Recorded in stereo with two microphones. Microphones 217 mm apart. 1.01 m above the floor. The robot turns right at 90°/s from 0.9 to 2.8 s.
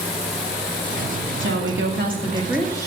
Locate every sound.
1.4 s a woman speaking: 110° right, 2 m; by 2.9 s 20° left, 2 m